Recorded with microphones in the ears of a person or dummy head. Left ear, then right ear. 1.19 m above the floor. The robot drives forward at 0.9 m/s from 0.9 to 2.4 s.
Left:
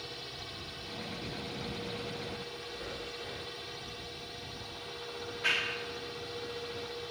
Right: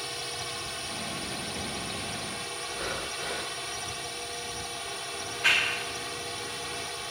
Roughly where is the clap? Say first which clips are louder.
Right 7 dB; right.